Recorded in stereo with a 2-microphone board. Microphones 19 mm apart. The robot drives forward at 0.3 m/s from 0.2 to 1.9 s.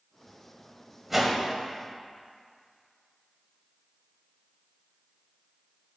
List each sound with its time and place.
1.1 s a whoosh: 15° right (ahead or behind), 0.7 m; by 1.4 s 20° right (ahead or behind), 0.6 m